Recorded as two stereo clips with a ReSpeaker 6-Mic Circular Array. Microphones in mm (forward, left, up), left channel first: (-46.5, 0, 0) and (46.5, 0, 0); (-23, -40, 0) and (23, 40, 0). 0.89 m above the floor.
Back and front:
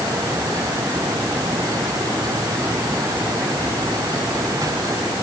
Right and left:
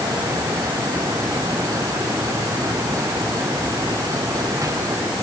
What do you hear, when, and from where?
Only background noise.